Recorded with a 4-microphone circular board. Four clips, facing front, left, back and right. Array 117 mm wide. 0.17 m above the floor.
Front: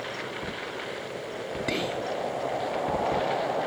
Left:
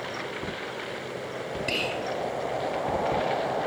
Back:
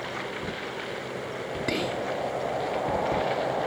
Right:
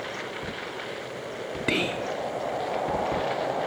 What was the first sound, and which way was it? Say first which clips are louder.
Whispering: right 5 dB, back 1 dB; 95° right.